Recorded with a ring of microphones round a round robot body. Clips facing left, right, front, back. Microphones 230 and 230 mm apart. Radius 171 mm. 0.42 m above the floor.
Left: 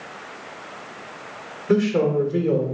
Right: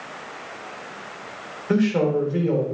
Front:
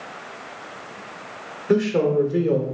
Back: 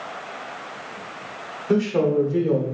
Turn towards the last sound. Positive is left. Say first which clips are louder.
# left 1 dB, front 1 dB
turn(degrees=65)